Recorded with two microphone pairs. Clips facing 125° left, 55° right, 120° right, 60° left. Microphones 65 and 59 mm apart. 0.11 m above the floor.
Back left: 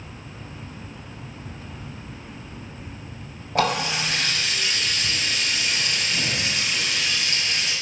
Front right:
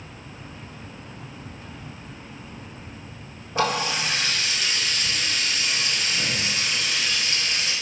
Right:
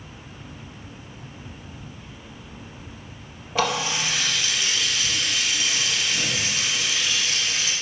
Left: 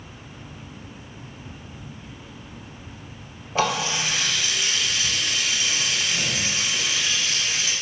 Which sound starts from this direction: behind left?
A running tap, at 3.5 s.